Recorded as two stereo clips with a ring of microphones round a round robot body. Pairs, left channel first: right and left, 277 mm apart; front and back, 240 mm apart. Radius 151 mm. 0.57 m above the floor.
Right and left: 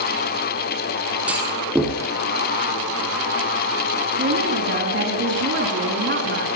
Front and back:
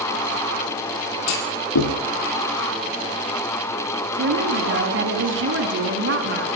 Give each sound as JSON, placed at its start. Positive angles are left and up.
{"t": 1.3, "sound": "a clunk", "azimuth_deg": 5, "distance_m": 4.5}
{"t": 4.2, "sound": "a woman speaking", "azimuth_deg": 140, "distance_m": 6.0}